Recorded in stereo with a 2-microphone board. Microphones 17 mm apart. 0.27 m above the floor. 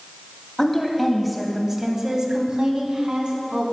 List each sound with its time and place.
0.6 s a woman speaking: 20° left (ahead or behind), 1.7 m; by 3.6 s 65° right (ahead or behind), 2.5 m